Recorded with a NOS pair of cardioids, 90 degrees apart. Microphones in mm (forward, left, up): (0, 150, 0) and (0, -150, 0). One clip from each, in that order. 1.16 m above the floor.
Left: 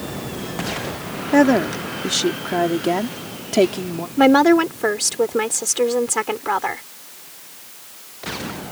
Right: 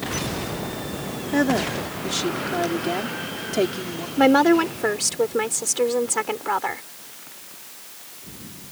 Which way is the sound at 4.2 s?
15° left.